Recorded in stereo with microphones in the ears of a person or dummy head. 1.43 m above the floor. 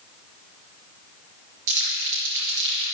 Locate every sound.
1.7 s crumpling: 70° right (ahead or behind), 4 m